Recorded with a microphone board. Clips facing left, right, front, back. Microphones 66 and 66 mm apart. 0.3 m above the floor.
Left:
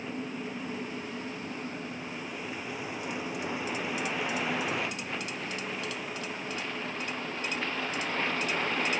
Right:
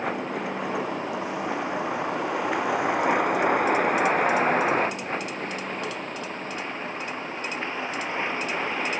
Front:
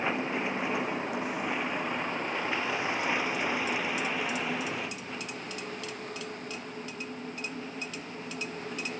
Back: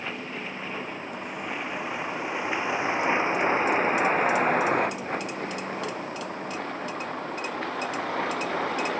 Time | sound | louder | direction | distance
0.0 | a vehicle | right 8 dB, front 4 dB | 70° right | ?